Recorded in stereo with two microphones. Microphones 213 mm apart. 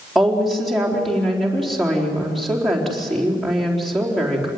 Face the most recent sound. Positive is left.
turn(degrees=0)  # may be behind; listen again after turning